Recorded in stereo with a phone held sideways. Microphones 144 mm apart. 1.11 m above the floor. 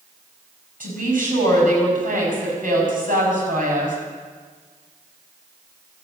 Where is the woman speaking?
70° right (ahead or behind), 5.5 m.